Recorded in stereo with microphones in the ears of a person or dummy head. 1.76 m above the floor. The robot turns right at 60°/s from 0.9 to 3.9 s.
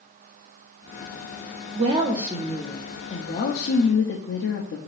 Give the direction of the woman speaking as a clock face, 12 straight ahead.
2 o'clock.